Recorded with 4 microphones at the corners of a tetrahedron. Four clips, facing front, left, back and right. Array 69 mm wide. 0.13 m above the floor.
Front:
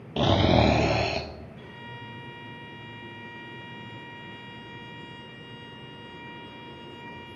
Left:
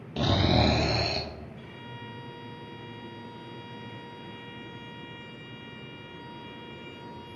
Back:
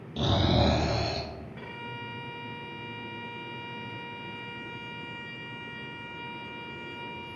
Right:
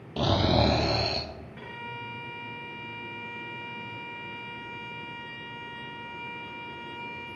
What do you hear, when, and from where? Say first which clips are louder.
0.2 s snoring: right 1 dB, front 5 dB; 5° right, 1.1 m
1.6 s a violin: right 5 dB, back 3 dB; 135° right, 2.5 m